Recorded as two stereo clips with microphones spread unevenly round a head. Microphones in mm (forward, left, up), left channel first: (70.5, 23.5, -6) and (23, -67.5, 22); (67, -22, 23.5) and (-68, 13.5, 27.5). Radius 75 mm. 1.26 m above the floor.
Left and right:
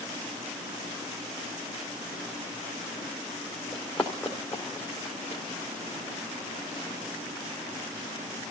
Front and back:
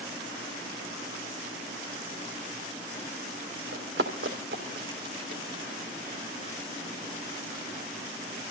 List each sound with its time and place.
3.7 s running footsteps: 150° left, 4 m; by 5.4 s 140° left, 3 m